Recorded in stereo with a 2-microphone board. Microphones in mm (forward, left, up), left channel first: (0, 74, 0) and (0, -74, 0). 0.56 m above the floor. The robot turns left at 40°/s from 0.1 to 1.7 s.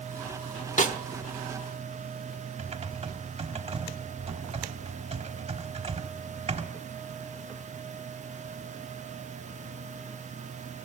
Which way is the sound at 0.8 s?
55° left (ahead or behind).